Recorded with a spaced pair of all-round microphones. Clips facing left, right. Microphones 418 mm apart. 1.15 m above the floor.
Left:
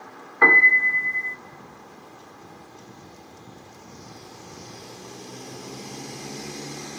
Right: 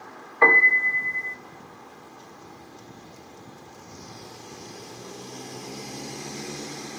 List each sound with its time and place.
0.4 s a piano: 30° left (ahead or behind), 0.5 m